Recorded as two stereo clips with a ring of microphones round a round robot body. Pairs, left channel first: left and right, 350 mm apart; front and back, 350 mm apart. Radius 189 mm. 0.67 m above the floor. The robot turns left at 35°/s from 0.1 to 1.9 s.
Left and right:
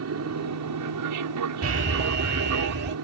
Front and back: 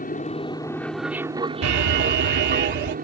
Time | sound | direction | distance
0.0 | an aircraft | 60° right | ?
1.6 | an alarm | 140° right | ?